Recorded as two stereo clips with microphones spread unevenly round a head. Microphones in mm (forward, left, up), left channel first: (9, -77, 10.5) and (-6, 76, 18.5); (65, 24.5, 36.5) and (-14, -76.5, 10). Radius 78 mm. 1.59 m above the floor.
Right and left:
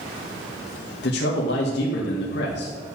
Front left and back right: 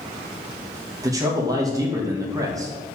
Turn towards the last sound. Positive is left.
turn(degrees=-65)